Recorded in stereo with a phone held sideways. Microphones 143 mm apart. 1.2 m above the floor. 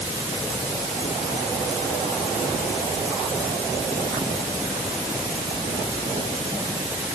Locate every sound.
Only background noise.